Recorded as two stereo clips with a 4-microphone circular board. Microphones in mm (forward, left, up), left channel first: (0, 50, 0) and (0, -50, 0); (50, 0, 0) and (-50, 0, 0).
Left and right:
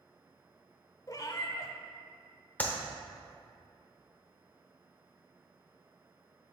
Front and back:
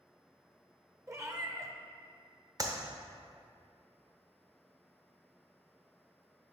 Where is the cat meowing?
130° left, 0.6 m.